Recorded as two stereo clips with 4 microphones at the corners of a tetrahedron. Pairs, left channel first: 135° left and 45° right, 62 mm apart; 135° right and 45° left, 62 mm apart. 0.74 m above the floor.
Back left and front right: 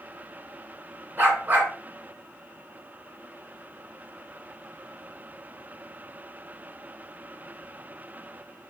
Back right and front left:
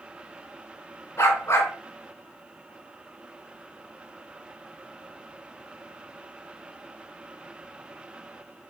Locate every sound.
1.2 s a dog barking: 105° right, 1.8 m